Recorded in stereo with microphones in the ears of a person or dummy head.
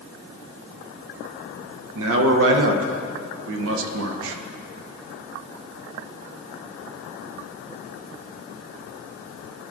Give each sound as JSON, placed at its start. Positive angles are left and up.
{"t": 1.9, "sound": "a man speaking", "side_deg": -75, "distance_m": 0.7}